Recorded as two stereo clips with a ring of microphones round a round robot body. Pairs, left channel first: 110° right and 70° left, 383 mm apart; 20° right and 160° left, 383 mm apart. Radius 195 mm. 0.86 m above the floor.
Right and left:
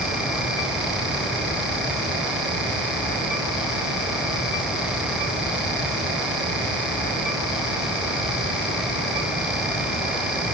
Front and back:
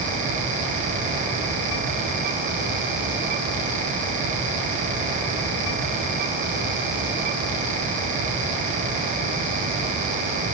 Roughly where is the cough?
No cough in this recording.